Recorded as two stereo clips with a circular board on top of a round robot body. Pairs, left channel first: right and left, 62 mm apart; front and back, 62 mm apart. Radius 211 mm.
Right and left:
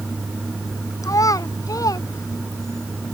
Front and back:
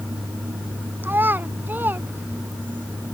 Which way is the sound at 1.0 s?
120° right.